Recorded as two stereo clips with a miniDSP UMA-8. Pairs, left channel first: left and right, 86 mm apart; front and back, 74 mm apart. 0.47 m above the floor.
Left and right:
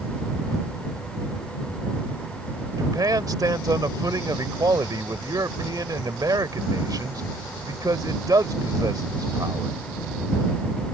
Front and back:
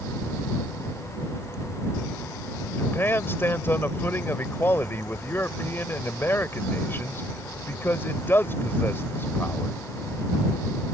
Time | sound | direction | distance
2.8 | a man speaking | 55° right | ?